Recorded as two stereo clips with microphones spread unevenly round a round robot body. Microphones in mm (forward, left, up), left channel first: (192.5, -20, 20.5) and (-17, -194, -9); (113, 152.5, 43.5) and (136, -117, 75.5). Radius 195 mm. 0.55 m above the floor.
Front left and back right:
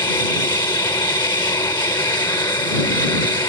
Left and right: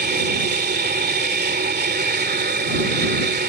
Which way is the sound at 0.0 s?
35° right.